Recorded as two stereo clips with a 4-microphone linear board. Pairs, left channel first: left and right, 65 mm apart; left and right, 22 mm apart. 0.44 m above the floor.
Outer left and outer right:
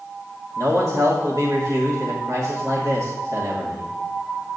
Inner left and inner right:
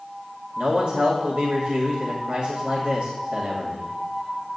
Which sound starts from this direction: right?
A man speaking, at 0.6 s.